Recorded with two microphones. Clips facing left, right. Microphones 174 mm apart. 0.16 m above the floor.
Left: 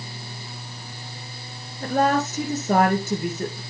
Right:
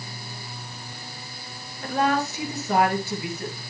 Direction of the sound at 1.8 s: 45° left (ahead or behind).